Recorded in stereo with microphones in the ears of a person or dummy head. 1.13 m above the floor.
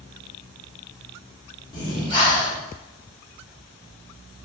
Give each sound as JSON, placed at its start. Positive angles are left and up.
{"t": 1.7, "sound": "breathing", "side_deg": 25, "distance_m": 0.9}